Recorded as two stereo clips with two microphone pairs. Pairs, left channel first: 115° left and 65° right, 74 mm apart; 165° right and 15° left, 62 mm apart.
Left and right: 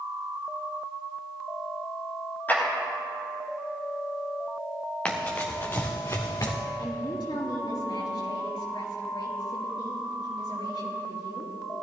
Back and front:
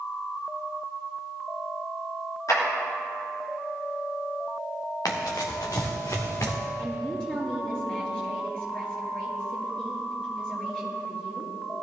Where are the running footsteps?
170° right, 2 m; by 6.5 s 155° left, 1.9 m.